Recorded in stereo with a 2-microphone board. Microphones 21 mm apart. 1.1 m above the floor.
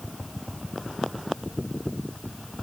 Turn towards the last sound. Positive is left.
No sound to turn to.